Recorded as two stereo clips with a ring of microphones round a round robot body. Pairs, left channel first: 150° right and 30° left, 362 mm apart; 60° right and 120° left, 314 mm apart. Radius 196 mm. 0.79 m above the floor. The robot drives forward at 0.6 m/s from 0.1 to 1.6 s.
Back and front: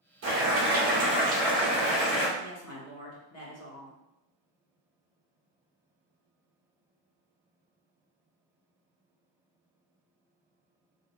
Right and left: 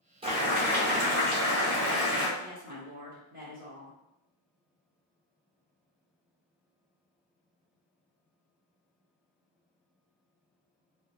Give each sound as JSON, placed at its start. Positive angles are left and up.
{"t": 0.2, "sound": "boiling", "azimuth_deg": 55, "distance_m": 1.2}
{"t": 2.4, "sound": "a woman speaking", "azimuth_deg": 175, "distance_m": 1.0}